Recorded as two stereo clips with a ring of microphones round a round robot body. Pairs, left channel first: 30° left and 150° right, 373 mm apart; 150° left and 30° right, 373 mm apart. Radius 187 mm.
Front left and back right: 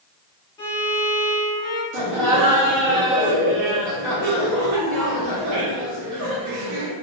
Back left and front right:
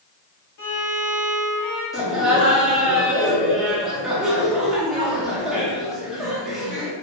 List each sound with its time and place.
0.6 s a violin: 110° left, 1.3 m
1.9 s laughter: 120° right, 1.2 m